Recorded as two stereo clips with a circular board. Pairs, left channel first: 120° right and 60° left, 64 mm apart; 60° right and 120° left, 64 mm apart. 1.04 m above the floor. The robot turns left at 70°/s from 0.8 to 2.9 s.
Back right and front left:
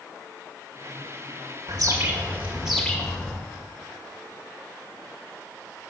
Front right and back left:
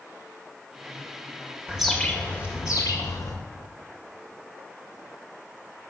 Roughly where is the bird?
Ahead left.